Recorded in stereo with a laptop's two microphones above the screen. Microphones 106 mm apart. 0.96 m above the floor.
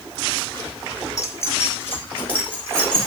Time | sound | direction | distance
1.2 | keys jangling | 30° left (ahead or behind) | 1.8 m